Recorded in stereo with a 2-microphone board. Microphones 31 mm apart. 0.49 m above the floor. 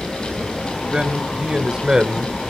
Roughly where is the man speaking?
Right.